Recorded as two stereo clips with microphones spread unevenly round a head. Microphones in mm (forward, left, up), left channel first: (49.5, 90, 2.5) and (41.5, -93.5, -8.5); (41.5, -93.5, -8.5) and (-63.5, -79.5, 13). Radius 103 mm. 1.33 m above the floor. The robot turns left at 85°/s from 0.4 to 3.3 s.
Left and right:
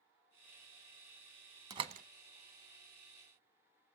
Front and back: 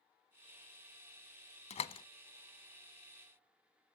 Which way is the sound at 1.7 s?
20° right.